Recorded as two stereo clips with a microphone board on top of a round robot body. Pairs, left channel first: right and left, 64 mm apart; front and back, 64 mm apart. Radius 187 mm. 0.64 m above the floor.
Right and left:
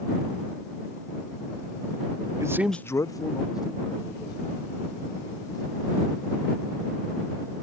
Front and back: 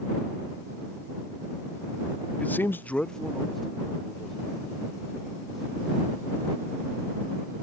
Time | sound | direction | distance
2.4 | a man speaking | 65° left | ?